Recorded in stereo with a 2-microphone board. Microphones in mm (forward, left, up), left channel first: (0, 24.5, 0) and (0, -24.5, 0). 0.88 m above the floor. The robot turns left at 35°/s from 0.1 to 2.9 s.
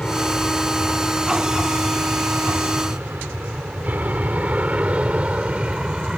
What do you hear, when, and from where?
0.0 s an aircraft: 20° left (ahead or behind); by 6.2 s 20° right (ahead or behind)